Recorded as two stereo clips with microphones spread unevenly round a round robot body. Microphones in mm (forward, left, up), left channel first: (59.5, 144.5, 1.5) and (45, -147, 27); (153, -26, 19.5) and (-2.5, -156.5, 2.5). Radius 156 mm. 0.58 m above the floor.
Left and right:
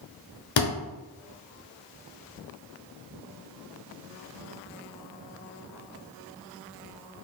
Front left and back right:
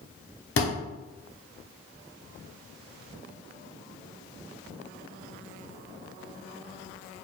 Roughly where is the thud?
Ahead left.